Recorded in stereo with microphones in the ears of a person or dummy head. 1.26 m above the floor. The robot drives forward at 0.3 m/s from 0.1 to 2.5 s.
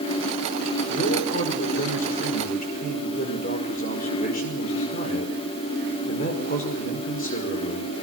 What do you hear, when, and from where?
0.9 s a man speaking: 55° left (ahead or behind), 5 m; by 7.9 s 50° left (ahead or behind), 5 m